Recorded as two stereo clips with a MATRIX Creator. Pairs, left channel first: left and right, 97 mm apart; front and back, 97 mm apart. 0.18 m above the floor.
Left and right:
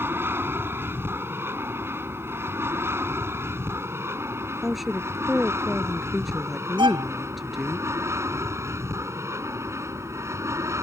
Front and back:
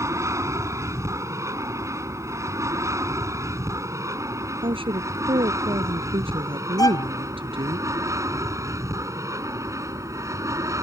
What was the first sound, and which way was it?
An aircraft, 140° right.